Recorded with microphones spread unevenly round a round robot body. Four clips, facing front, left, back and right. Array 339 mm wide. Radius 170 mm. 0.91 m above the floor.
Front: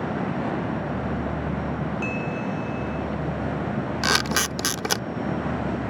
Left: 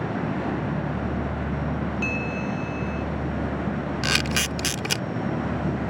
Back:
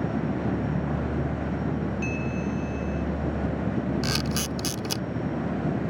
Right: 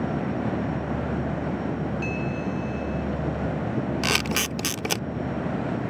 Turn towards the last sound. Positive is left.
turn(degrees=-40)